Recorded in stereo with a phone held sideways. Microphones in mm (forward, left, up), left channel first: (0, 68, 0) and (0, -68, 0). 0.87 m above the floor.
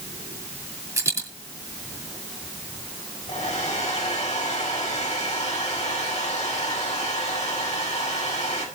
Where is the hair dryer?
60° left (ahead or behind), 5 m.